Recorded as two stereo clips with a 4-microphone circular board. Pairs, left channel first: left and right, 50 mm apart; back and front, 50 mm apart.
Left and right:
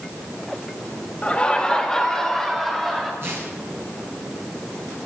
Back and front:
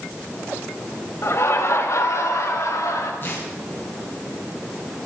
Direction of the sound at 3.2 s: 130° right.